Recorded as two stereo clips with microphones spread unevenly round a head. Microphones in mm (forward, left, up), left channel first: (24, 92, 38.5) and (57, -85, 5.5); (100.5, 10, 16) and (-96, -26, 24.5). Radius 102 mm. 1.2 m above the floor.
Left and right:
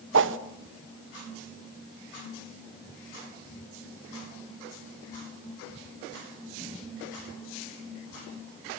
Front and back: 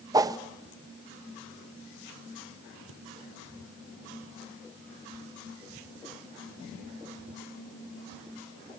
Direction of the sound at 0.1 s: 95° right.